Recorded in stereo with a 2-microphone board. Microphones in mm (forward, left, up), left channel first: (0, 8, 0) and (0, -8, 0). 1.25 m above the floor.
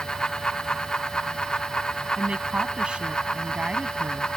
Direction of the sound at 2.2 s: 80° right.